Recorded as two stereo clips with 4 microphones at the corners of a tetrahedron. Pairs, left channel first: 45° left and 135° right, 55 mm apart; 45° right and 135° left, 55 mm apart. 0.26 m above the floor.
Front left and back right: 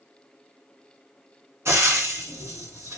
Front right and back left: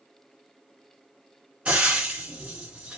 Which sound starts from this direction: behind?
Frying, at 1.6 s.